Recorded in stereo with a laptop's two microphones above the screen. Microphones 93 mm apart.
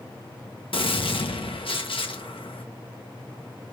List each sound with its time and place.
0.7 s a gunshot: 70° left (ahead or behind), 0.6 m